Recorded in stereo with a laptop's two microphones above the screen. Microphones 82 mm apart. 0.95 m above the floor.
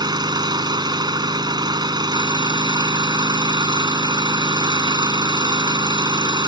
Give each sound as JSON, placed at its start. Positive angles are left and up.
{"t": 0.0, "sound": "an engine running", "side_deg": -65}